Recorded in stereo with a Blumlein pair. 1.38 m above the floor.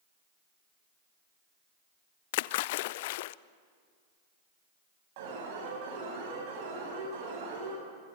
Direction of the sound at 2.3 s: 50° left.